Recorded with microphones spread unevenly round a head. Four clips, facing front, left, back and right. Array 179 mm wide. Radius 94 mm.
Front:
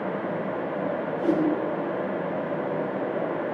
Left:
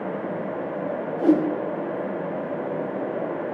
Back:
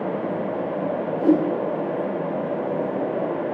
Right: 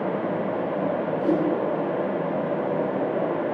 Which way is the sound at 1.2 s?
130° left.